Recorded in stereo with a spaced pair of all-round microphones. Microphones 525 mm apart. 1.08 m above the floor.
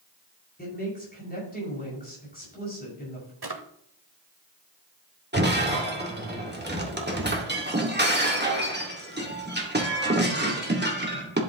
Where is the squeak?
I don't hear a squeak.